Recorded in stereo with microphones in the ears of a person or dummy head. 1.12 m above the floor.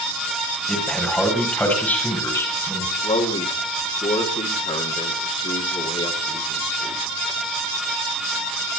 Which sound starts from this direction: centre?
A man speaking, at 0.7 s.